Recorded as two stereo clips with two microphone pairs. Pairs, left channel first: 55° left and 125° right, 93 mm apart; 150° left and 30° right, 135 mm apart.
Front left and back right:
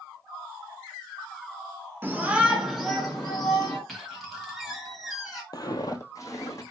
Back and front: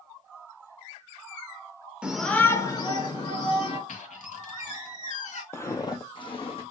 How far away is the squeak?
About 1.5 m.